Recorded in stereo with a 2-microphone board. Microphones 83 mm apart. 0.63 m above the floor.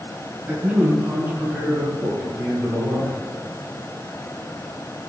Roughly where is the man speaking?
Right.